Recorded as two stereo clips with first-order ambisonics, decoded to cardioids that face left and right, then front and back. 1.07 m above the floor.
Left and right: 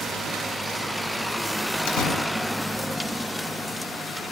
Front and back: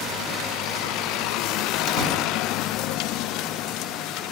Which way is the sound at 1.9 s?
60° left.